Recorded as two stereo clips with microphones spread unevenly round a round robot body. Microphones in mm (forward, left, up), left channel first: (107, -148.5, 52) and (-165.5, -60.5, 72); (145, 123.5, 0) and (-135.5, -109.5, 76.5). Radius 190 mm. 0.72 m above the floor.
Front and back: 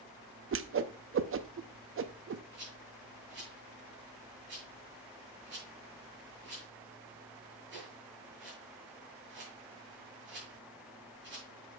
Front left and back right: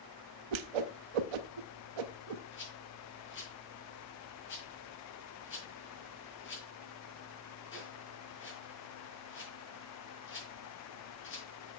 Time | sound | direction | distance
0.5 | a whoosh | 150° right | 0.7 m
2.5 | a rattle | 100° left | 4.5 m